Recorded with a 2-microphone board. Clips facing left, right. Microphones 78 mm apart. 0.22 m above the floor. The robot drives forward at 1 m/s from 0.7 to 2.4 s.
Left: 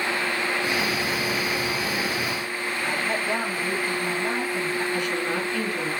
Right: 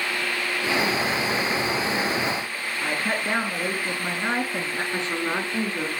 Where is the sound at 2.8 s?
65° right (ahead or behind), 3.5 m.